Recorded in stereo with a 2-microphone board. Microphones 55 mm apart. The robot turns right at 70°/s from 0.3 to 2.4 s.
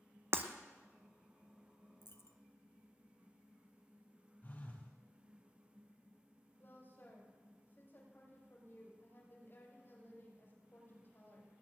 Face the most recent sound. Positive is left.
turn(degrees=45)  # may be behind; listen again after turning